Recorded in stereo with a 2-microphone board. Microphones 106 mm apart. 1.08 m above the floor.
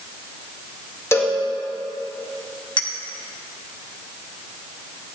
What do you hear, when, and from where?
1.1 s a cowbell: 25° left (ahead or behind), 1.6 m
2.8 s a clink: 45° left (ahead or behind), 1.2 m